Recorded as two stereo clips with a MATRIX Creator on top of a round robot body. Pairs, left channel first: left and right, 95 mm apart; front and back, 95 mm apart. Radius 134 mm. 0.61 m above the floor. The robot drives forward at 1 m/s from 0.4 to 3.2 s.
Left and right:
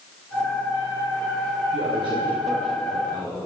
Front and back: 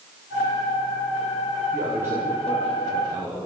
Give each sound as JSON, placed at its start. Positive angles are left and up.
{"t": 1.7, "sound": "a man speaking", "azimuth_deg": -110, "distance_m": 2.5}